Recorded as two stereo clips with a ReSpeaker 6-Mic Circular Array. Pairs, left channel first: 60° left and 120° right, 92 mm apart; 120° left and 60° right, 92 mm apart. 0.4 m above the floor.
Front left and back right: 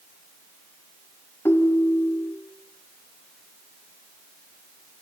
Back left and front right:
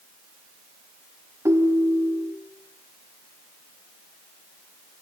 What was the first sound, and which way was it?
A ringtone, straight ahead.